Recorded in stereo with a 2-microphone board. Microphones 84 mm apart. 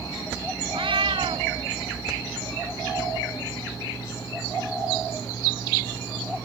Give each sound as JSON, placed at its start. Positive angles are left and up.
{"t": 0.7, "sound": "a cat meowing", "side_deg": -85}